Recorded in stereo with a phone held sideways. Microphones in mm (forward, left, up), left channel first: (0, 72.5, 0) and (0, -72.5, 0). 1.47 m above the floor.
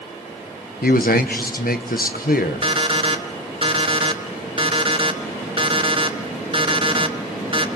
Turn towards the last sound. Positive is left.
turn(degrees=-40)  # may be behind; listen again after turning